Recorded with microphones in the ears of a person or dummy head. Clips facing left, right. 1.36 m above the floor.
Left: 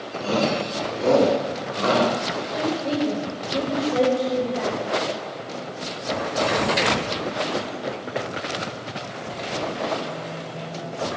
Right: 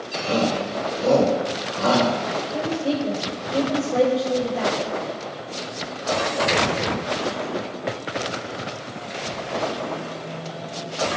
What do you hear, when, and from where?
0.2 s a shout: 65° left (ahead or behind), 2.5 m; by 2.1 s 40° left (ahead or behind), 3 m
2.5 s a woman speaking: 10° right (ahead or behind), 4.5 m